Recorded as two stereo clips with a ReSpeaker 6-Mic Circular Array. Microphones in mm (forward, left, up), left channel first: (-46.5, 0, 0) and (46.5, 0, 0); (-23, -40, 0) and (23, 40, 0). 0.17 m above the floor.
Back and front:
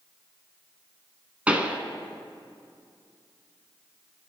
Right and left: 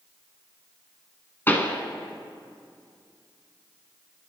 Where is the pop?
65° right, 1.6 m.